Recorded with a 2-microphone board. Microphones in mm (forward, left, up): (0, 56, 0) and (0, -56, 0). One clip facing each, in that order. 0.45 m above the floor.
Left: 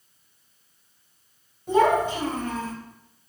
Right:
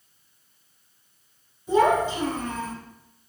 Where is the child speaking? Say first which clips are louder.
Even; 65° left (ahead or behind), 1.8 m; by 2.7 s 30° left (ahead or behind), 1.0 m.